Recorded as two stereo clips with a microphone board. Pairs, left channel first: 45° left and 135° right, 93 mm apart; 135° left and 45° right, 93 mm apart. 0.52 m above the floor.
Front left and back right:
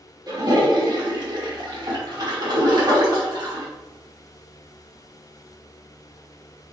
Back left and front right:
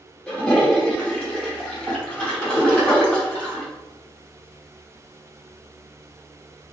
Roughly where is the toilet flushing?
Behind right.